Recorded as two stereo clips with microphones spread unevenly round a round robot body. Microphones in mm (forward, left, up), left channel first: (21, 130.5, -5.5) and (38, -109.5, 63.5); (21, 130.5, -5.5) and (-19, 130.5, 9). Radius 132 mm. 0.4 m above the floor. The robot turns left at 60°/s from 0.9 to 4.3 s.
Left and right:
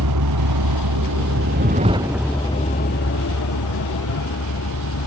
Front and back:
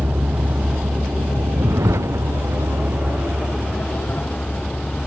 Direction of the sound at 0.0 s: 110° right.